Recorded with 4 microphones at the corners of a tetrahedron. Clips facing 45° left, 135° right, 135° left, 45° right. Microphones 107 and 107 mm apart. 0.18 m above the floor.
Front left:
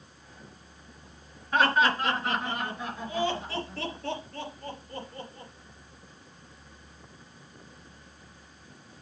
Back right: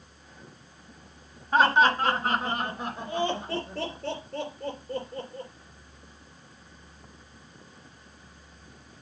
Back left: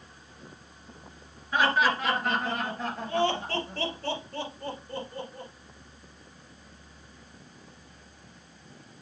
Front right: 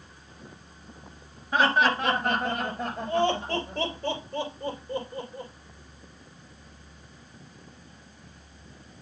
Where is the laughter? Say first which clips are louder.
Back right 3 dB, front right 2 dB; 95° right, 2 m; by 5.5 s 125° right, 4.5 m.